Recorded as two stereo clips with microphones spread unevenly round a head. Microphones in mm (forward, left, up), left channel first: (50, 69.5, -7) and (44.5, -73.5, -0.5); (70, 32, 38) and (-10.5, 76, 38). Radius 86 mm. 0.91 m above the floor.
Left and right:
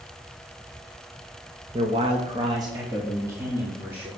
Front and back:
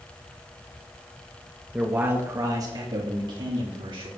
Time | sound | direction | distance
1.7 | a man speaking | 130° right | 1.0 m